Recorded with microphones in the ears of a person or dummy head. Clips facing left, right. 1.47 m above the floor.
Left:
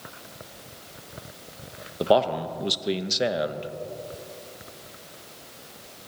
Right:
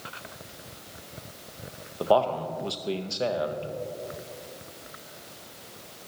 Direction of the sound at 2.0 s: 20° left (ahead or behind).